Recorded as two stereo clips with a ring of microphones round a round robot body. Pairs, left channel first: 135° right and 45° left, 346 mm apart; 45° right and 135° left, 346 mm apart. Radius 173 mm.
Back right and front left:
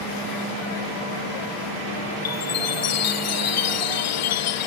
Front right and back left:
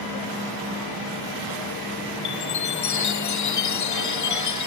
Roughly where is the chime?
Right.